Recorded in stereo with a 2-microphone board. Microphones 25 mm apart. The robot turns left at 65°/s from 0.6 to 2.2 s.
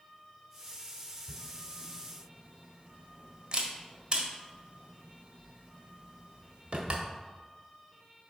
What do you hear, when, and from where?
1.3 s a camera shutter: 65° right (ahead or behind), 1.3 m; by 7.0 s 40° right (ahead or behind), 1.3 m